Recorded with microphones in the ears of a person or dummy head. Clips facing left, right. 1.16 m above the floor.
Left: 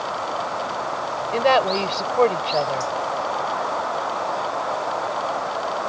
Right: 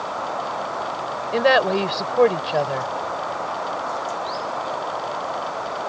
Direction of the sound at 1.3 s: 20° right (ahead or behind).